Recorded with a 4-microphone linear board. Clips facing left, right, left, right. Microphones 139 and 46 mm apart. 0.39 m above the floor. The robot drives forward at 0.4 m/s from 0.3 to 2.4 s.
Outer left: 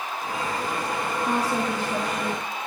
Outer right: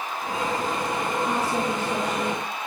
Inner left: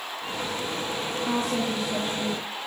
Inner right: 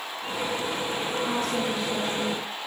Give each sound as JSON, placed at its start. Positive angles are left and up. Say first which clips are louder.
{"t": 1.3, "sound": "a woman speaking", "louder": "even, inner left 4 dB", "side_deg": 10, "distance_m": 7.5}